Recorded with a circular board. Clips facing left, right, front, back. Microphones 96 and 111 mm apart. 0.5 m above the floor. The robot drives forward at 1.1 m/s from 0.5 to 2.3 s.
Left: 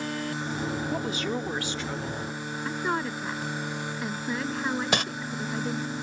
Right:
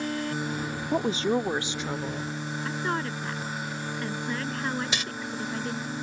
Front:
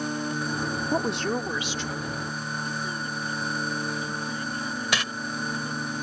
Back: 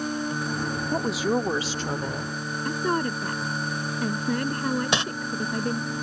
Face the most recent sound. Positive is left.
turn(degrees=120)